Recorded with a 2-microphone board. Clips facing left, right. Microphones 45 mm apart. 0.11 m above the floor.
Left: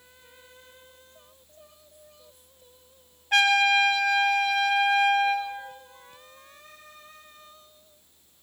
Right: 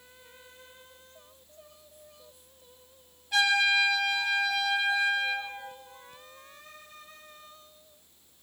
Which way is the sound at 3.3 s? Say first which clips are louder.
Left 4 dB; 55° left (ahead or behind).